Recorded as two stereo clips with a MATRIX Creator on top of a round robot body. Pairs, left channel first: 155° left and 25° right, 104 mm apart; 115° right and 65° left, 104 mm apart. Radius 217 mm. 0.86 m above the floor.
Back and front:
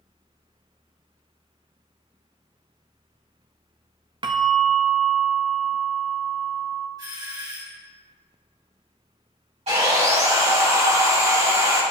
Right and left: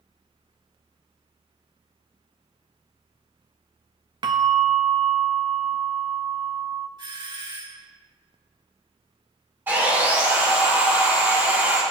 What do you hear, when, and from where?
4.2 s a bell: 20° left, 0.6 m
7.0 s a doorbell: 25° left, 4 m
9.7 s sawing: 5° right, 3.5 m